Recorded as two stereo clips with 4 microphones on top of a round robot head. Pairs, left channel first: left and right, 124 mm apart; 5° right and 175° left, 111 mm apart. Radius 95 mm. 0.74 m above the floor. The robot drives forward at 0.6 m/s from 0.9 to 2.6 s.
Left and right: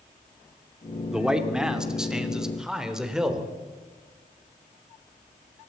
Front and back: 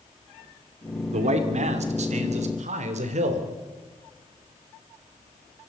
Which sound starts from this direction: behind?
A man speaking, at 1.1 s.